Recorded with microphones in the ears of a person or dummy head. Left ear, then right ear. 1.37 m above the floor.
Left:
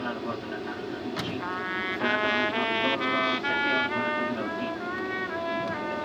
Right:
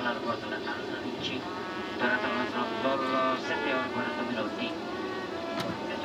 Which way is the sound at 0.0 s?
35° right (ahead or behind).